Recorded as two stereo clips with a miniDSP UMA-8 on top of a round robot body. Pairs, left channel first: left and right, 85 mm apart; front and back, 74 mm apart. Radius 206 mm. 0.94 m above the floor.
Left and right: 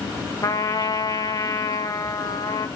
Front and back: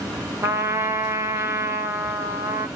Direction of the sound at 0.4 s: 130° left.